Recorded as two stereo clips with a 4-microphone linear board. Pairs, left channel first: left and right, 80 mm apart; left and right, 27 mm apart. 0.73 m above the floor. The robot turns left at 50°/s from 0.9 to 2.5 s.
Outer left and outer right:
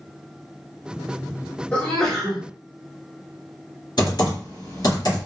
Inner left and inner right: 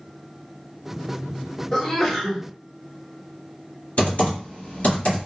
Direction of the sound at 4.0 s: 60° left (ahead or behind).